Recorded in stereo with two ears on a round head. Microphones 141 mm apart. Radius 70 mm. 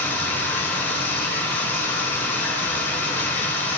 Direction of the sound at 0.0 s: 15° left (ahead or behind).